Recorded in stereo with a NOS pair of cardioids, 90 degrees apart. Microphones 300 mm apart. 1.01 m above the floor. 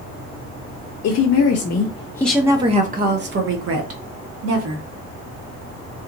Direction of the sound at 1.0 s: 60° left.